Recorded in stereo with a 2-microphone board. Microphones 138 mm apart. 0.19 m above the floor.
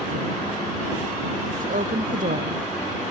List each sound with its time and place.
1.6 s a woman speaking: 70° right (ahead or behind)